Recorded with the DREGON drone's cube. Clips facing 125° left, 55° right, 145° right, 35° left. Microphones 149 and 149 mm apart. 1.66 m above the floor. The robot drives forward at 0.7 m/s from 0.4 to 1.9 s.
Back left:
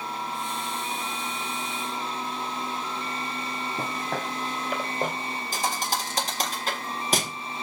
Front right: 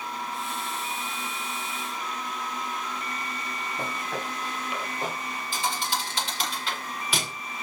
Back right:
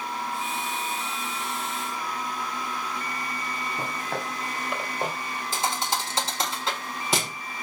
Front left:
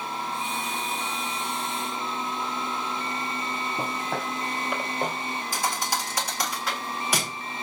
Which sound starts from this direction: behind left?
A thud, at 5.5 s.